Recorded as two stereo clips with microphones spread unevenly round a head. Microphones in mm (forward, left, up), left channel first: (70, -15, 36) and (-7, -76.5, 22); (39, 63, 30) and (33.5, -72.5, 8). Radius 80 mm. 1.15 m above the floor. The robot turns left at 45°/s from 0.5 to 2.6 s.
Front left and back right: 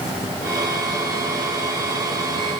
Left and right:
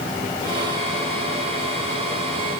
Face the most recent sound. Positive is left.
No sound to turn to.